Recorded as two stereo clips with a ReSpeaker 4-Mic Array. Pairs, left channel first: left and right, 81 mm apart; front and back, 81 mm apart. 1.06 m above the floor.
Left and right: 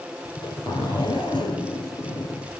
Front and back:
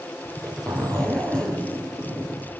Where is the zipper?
80° left, 4 m.